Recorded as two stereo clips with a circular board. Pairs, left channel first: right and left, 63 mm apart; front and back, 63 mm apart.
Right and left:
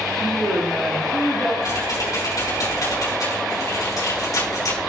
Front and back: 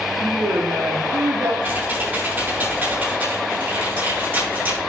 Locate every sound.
0.2 s a woman speaking: 175° left, 1.8 m
1.6 s typing on a keyboard: 115° right, 5 m